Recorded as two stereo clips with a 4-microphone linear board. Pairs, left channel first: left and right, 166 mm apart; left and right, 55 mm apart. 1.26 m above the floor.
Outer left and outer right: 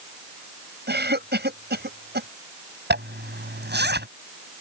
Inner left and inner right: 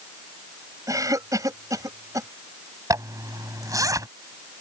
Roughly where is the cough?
Right.